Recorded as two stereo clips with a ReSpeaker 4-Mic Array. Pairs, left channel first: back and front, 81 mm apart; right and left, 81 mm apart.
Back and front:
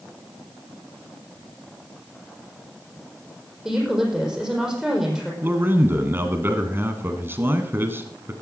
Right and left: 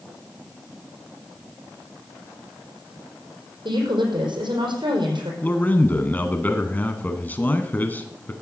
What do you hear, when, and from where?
3.6 s a woman speaking: 85° left, 5.5 m
5.4 s a man speaking: 40° right, 1.3 m